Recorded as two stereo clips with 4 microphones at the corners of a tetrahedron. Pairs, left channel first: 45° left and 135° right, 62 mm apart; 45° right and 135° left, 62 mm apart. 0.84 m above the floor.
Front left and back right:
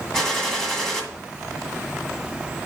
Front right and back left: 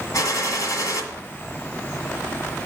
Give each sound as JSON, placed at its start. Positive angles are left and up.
{"t": 0.1, "sound": "a gunshot", "azimuth_deg": -35, "distance_m": 1.7}